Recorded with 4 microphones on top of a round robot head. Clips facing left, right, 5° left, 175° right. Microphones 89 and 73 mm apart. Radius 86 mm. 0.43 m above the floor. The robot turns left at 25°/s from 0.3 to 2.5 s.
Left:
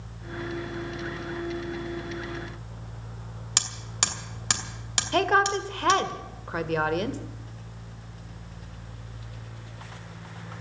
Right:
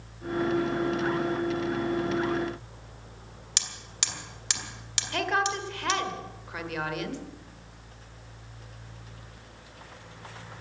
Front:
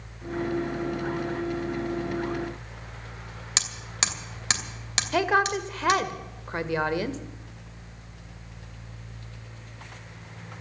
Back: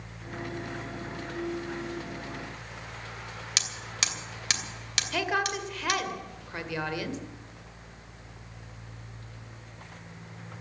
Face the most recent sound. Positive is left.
turn(degrees=50)